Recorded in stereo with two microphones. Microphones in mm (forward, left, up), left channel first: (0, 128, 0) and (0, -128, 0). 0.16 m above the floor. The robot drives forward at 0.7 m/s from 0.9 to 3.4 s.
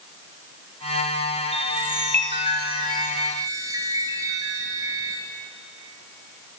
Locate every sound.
1.5 s a chime: 25° right (ahead or behind), 0.6 m; by 5.2 s 15° right (ahead or behind), 1.2 m